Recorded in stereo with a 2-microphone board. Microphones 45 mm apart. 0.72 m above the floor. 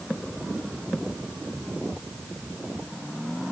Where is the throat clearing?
I don't hear throat clearing.